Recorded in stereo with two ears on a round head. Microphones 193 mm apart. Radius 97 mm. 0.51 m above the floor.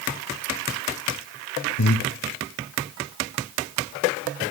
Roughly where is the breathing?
Left.